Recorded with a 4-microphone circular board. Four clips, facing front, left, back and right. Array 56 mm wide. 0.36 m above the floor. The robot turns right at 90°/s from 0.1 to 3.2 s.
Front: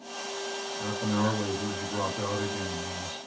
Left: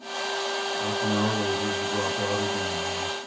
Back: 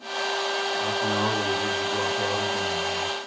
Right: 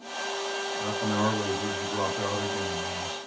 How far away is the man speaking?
About 2.5 m.